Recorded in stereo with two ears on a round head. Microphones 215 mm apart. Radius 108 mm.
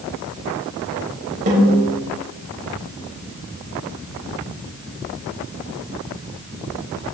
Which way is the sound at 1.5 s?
35° right (ahead or behind).